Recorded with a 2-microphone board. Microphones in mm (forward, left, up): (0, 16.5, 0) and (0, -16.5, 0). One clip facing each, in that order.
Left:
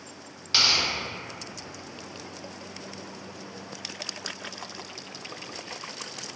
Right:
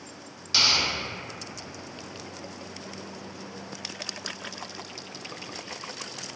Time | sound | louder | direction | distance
0.5 | tearing paper | even | 20° left (ahead or behind) | 1.4 m